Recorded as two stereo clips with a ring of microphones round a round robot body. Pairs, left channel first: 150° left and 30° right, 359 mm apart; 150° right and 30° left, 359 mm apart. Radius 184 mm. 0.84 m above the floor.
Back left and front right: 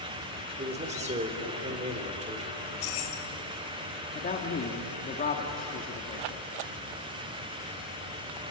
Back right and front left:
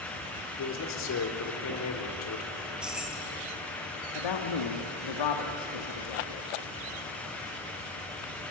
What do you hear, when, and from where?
0.6 s a man speaking: 100° right, 3 m
2.6 s keys jangling: 120° left, 3.5 m
4.2 s a man speaking: 145° right, 2 m